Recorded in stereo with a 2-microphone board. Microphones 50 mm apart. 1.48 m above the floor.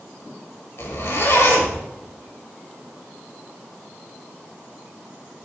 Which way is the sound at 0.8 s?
60° left (ahead or behind).